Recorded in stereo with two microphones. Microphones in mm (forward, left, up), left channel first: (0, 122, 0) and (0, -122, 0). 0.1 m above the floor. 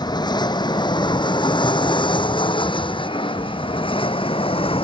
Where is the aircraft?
15° left (ahead or behind); by 4.8 s 20° left (ahead or behind).